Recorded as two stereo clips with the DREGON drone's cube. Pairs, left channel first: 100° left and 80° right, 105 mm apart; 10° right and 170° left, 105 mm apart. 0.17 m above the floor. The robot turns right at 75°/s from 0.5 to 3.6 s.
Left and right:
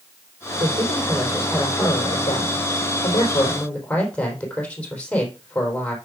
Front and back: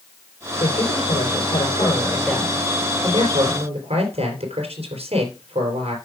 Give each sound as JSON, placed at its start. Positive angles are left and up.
{"t": 0.6, "sound": "a man speaking", "azimuth_deg": -50, "distance_m": 4.0}